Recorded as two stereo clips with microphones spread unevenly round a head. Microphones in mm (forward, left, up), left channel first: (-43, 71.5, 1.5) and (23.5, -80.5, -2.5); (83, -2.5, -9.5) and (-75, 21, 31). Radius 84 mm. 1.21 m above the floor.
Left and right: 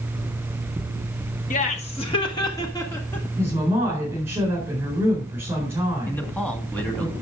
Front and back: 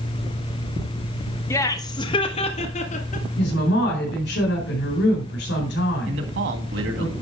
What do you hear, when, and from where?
1.5 s laughter: 65° left, 1.2 m; by 3.3 s 35° left, 1.9 m
3.4 s a woman speaking: 10° left, 4.5 m
6.1 s a man speaking: 165° right, 2 m